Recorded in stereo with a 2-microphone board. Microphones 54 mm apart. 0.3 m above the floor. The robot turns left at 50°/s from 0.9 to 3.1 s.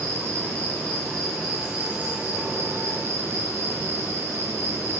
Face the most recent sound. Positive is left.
turn(degrees=-85)